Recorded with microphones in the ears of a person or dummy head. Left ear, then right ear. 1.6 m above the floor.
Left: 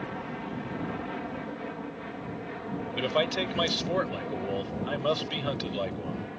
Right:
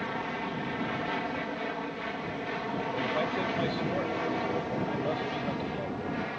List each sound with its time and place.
0.0 s an aircraft: 40° right (ahead or behind); by 6.4 s 60° right (ahead or behind)
2.9 s a man speaking: 50° left (ahead or behind)